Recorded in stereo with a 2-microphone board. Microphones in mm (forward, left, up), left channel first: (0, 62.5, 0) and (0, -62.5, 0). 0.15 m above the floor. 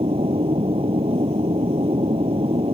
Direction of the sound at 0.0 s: 50° right (ahead or behind).